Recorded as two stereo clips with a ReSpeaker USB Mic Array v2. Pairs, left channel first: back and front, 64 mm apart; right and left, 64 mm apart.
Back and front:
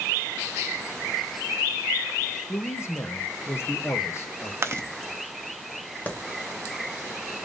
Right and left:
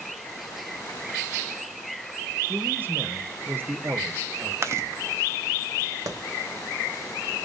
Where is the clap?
115° left, 1.1 m.